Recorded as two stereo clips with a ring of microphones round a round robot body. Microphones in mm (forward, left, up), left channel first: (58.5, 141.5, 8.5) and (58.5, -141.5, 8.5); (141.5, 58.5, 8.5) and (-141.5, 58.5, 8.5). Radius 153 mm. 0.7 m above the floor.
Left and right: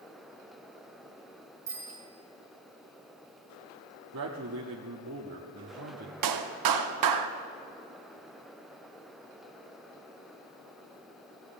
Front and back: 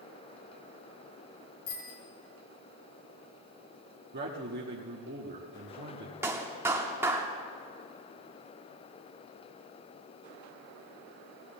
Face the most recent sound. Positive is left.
turn(degrees=-100)